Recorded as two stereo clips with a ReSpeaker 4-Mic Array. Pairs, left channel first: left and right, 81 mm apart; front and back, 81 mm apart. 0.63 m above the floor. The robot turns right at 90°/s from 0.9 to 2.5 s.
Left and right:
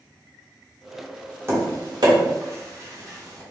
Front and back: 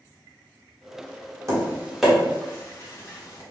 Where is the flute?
I don't hear a flute.